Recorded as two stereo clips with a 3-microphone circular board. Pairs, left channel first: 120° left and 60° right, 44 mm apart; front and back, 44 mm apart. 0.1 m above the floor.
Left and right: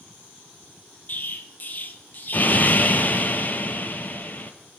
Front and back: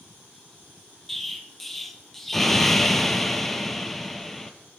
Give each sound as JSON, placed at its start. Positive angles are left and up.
{"t": 1.1, "sound": "an explosion", "azimuth_deg": 85, "distance_m": 0.6}